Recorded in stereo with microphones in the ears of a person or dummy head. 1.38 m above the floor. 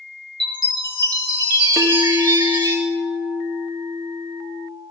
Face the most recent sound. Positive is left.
turn(degrees=-15)  # may be behind; listen again after turning